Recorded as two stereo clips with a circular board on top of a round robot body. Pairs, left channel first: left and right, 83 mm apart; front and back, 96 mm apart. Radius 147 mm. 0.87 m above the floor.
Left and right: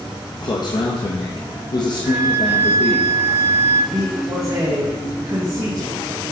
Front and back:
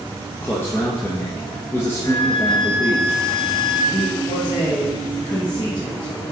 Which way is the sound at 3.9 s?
45° right.